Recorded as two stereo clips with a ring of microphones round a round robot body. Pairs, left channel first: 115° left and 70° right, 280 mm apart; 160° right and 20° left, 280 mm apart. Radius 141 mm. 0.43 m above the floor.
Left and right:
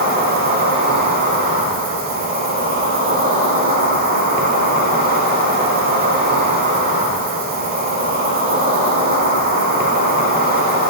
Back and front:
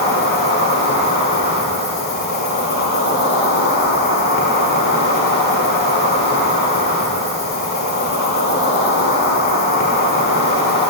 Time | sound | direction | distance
0.0 | an insect | 115° right | 1.2 m